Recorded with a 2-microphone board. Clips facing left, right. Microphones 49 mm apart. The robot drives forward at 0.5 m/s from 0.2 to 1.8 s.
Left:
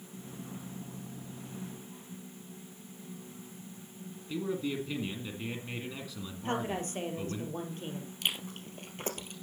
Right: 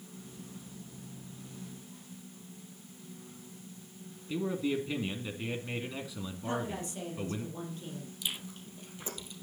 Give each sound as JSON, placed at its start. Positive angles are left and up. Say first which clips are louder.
{"t": 4.3, "sound": "a man speaking", "louder": "right 2 dB", "side_deg": -10, "distance_m": 1.8}
{"t": 6.5, "sound": "a woman speaking", "louder": "left 2 dB", "side_deg": 50, "distance_m": 4.5}
{"t": 8.2, "sound": "chewing", "louder": "left 6 dB", "side_deg": 55, "distance_m": 2.0}